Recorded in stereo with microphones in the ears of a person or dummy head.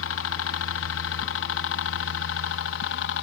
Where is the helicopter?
65° left (ahead or behind).